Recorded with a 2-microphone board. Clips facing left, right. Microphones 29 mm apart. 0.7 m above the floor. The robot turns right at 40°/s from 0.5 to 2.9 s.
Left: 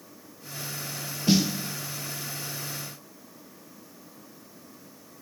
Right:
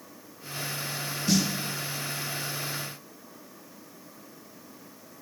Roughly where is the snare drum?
Left.